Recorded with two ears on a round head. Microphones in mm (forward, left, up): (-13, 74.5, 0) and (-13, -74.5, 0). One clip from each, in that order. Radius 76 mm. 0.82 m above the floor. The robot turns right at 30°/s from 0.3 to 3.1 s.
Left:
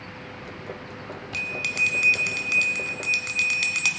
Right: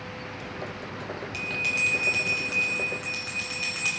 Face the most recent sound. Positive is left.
turn(degrees=80)